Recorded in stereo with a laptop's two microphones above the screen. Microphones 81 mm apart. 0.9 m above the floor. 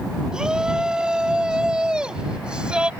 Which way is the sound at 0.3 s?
10° right (ahead or behind).